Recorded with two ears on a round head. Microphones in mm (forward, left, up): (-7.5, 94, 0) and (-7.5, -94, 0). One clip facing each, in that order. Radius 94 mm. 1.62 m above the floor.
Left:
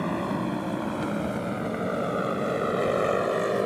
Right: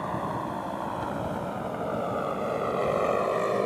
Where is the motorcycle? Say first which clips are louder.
Left 4 dB; 35° left (ahead or behind); by 3.7 s 10° left (ahead or behind).